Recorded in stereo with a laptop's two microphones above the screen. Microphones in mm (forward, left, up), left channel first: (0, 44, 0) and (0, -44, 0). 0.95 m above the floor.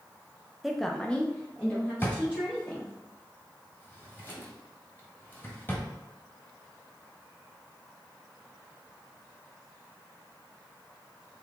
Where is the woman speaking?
Centre (ahead or behind), 0.6 m; by 2.9 s 10° left (ahead or behind), 3 m.